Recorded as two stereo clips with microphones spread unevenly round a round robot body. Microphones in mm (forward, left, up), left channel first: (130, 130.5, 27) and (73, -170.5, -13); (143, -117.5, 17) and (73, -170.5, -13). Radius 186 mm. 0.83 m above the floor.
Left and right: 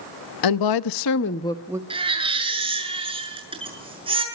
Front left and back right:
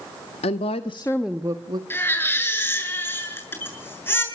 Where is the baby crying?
25° right, 7 m.